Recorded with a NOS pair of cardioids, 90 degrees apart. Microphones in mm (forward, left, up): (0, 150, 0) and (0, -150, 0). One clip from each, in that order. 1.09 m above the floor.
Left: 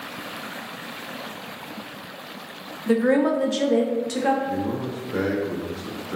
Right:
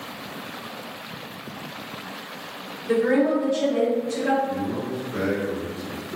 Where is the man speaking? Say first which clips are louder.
Left 1 dB; 55° left, 0.7 m.